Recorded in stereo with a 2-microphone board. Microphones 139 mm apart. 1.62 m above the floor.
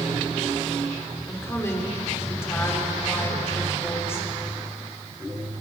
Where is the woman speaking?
20° left (ahead or behind), 5.5 m.